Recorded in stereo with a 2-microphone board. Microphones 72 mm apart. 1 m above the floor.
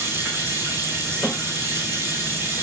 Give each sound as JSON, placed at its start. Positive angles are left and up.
{"t": 0.0, "sound": "running water", "side_deg": -40, "distance_m": 5.5}
{"t": 1.2, "sound": "a snare drum", "side_deg": 0, "distance_m": 4.5}